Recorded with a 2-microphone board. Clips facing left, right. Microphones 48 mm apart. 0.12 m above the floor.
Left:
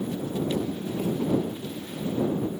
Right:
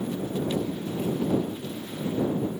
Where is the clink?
I don't hear a clink.